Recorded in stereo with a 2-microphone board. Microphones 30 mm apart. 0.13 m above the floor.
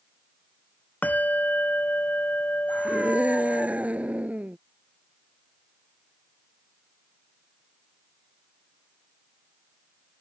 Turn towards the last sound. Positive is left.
turn(degrees=-55)  # may be behind; listen again after turning